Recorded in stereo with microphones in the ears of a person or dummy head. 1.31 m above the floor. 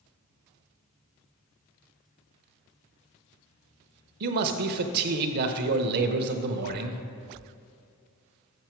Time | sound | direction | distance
4.2 | a man speaking | 60° right (ahead or behind) | 0.7 m